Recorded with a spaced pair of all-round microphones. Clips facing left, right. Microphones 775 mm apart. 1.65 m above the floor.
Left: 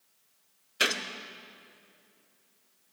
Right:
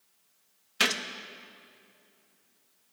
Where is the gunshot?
35° right (ahead or behind), 0.7 m.